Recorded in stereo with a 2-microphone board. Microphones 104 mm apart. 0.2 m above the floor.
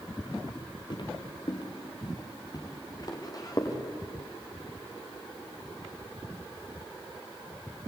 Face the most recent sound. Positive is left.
turn(degrees=35)  # may be behind; listen again after turning